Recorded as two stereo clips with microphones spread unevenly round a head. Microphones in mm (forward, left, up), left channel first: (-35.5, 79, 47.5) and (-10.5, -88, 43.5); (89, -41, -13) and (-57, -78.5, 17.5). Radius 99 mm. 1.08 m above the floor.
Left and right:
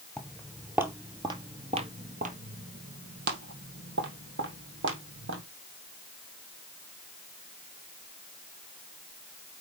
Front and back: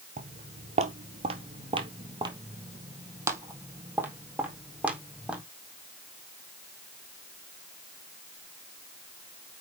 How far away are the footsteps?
About 1.7 m.